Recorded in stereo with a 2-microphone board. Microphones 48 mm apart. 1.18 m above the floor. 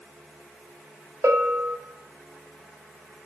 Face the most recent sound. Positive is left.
turn(degrees=-70)  # may be behind; listen again after turning